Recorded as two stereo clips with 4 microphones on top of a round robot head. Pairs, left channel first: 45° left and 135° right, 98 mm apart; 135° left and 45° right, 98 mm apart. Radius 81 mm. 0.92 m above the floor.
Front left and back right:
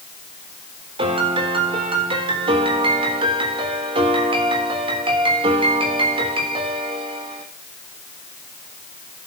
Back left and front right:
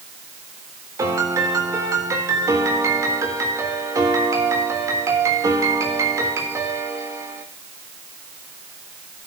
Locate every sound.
1.0 s a piano: 105° right, 3.5 m